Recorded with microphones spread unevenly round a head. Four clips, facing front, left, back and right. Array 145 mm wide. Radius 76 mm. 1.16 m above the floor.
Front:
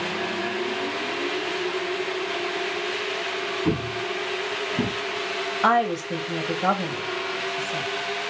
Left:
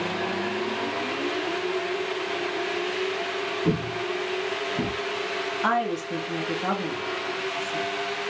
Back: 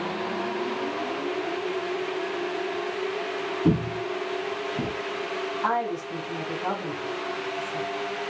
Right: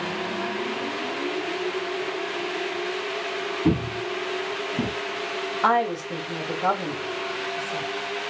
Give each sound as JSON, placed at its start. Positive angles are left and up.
{"t": 3.6, "sound": "footsteps", "azimuth_deg": -155, "distance_m": 2.0}
{"t": 5.6, "sound": "a woman speaking", "azimuth_deg": -40, "distance_m": 1.9}